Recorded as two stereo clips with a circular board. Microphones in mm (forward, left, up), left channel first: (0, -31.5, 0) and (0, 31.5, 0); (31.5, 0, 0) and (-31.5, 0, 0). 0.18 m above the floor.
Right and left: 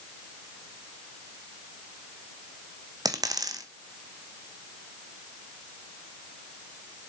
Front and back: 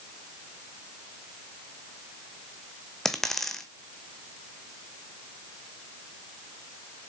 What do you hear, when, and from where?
3.0 s a dropped coin: 85° left, 1.0 m